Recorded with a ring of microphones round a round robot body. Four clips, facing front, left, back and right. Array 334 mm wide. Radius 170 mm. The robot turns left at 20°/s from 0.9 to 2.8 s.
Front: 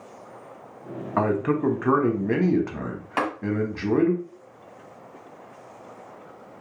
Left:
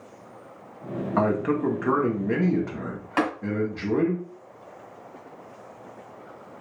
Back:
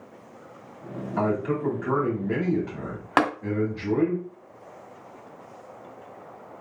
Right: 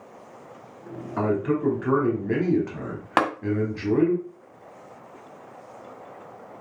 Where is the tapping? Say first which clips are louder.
Right 2 dB, back 4 dB; 135° right, 1.6 m.